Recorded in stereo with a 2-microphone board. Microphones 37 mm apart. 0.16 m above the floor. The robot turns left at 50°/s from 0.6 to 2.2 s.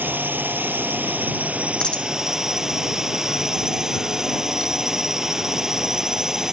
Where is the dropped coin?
25° left (ahead or behind); by 2.1 s 40° left (ahead or behind).